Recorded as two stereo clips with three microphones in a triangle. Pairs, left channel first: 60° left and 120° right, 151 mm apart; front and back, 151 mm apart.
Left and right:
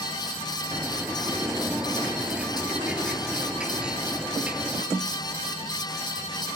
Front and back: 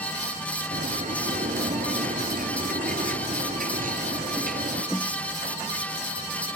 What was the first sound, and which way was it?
A bird, 155° left.